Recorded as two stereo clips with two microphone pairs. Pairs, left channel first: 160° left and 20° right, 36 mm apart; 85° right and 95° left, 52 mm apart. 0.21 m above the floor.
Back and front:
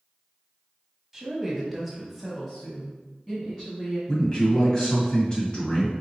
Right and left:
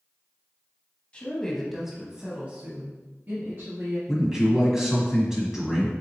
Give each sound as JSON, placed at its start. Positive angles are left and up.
{"t": 1.1, "sound": "a woman speaking", "azimuth_deg": -85, "distance_m": 1.0}
{"t": 4.1, "sound": "a man speaking", "azimuth_deg": 160, "distance_m": 1.3}